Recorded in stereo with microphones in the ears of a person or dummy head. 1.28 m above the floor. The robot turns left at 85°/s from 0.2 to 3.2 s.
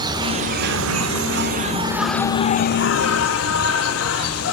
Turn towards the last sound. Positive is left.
turn(degrees=80)